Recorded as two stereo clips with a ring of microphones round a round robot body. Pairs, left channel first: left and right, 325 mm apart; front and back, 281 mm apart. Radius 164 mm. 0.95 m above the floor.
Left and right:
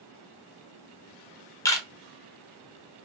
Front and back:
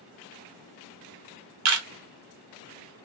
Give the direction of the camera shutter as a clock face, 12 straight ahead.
6 o'clock.